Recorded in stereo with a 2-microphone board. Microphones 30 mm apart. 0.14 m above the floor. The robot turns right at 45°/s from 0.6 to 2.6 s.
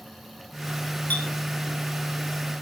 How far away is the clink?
About 3 m.